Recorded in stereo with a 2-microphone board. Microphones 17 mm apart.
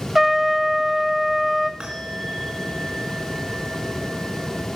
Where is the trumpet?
15° right (ahead or behind), 1.3 m.